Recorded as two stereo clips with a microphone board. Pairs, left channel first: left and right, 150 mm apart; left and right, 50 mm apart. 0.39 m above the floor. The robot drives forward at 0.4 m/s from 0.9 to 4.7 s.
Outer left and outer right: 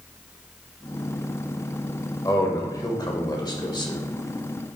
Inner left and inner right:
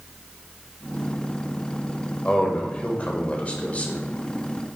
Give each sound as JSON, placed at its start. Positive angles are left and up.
{"t": 2.2, "sound": "a man speaking", "side_deg": 25, "distance_m": 1.6}